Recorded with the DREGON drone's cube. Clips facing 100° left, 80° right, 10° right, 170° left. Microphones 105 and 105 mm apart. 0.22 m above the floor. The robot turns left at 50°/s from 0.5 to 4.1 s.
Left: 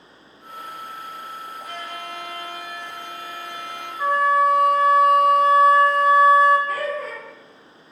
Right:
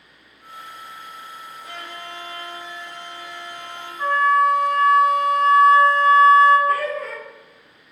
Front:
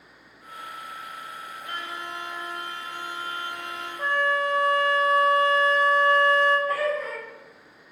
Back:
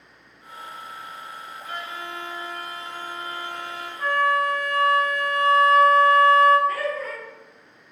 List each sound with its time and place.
1.6 s a violin: 10° left, 1.7 m; by 3.9 s 105° right, 1.7 m
4.0 s a flute: 30° left, 0.5 m; by 6.6 s 20° left, 0.5 m
6.7 s laughter: 80° right, 1.7 m